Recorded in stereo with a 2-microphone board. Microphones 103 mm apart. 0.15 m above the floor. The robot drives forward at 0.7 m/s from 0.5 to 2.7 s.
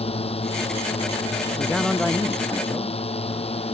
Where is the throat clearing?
No throat clearing in this recording.